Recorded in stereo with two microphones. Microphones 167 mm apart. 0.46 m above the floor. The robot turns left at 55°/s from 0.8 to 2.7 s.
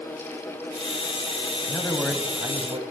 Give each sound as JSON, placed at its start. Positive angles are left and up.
{"t": 1.7, "sound": "a man speaking", "azimuth_deg": 25, "distance_m": 3.0}